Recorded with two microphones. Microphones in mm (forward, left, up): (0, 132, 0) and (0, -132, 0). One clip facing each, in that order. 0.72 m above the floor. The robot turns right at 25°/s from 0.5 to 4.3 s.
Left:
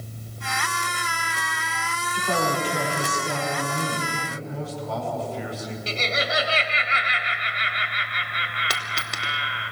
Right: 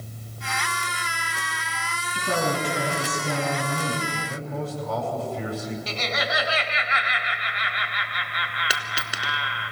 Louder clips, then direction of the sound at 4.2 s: Right 1 dB; 60° right (ahead or behind).